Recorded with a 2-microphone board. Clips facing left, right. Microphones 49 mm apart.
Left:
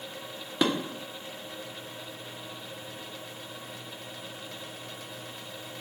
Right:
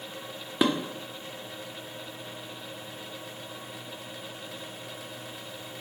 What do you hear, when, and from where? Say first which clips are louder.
0.6 s dishes clattering: right 2 dB; 10° right (ahead or behind), 0.8 m